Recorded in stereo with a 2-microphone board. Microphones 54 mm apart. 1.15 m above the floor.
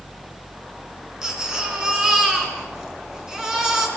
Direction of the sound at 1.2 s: 10° right (ahead or behind).